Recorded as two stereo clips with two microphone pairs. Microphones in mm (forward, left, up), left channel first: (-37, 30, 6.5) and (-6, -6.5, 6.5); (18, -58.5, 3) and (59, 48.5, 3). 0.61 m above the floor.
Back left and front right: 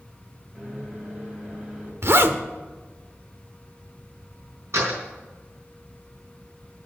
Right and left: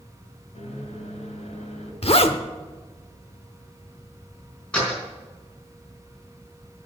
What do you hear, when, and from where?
0.6 s a microwave: 115° right, 3 m
2.0 s a zipper: 80° right, 0.9 m
4.7 s a door slam: 30° right, 5 m